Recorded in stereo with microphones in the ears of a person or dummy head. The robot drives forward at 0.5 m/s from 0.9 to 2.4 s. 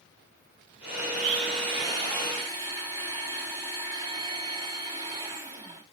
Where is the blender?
35° right (ahead or behind), 0.6 m; by 5.8 s 20° right (ahead or behind), 0.9 m.